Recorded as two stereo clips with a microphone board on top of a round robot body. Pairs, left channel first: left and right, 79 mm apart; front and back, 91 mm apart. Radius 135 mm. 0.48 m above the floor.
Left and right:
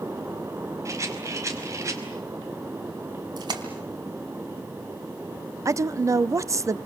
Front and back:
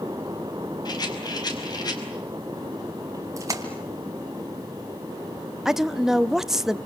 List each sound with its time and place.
0.8 s a rattle: 40° right, 5 m
3.4 s a splash: 125° right, 3 m
5.7 s a woman speaking: 95° right, 0.9 m